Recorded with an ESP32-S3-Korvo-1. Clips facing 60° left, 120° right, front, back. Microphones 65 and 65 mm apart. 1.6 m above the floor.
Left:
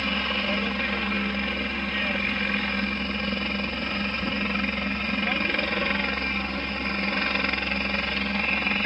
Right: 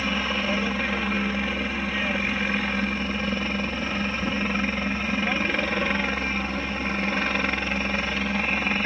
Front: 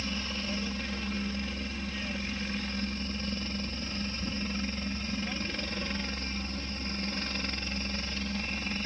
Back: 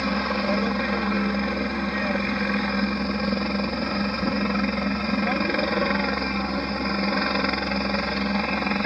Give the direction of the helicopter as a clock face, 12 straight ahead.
7 o'clock.